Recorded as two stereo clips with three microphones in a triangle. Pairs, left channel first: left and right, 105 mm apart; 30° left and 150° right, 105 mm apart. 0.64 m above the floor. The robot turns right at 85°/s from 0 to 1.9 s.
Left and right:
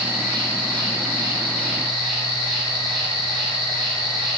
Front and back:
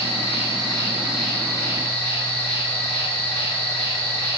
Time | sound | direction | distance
0.0 | an insect | 165° right | 1.3 m